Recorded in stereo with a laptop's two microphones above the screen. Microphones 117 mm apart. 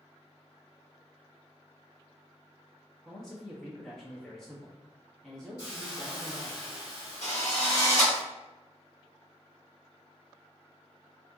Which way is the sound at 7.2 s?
75° left (ahead or behind).